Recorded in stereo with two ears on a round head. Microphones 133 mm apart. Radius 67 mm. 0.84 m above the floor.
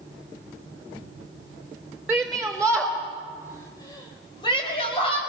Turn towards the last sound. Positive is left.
turn(degrees=35)  # may be behind; listen again after turning